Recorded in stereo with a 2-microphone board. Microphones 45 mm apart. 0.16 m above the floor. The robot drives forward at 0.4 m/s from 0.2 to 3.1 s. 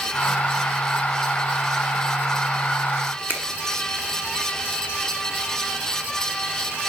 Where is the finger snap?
50° right (ahead or behind), 1.2 m.